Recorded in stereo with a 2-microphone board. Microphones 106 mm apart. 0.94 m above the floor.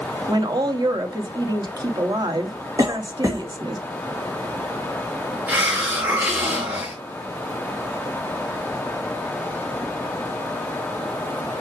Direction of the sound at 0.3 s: 40° right (ahead or behind).